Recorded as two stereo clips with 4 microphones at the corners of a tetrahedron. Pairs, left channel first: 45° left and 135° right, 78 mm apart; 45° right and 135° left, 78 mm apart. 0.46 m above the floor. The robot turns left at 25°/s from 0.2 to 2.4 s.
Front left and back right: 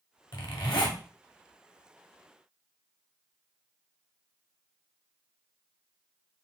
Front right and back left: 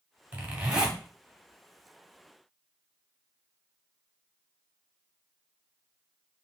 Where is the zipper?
70° left, 1.3 m; by 1.0 s 50° left, 1.3 m.